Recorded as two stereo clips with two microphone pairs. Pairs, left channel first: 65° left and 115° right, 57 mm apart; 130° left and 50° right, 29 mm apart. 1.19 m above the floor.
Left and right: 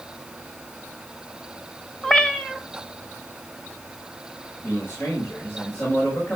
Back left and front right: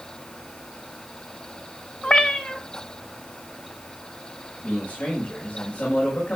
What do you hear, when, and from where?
2.0 s a cat meowing: 130° left, 1.1 m
4.6 s a man speaking: 115° left, 6 m